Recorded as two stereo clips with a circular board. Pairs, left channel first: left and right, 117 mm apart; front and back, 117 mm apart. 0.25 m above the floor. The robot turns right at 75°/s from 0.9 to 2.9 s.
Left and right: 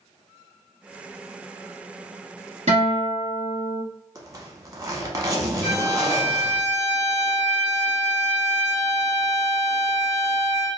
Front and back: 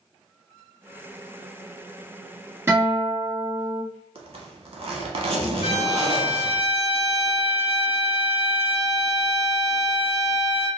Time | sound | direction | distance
2.7 | a guitar | 110° right | 1.2 m
4.2 | a zipper | 150° right | 0.6 m
5.6 | a violin | 95° right | 1.9 m